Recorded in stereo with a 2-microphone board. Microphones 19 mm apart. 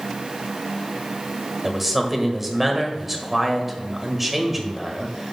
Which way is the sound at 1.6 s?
10° right (ahead or behind).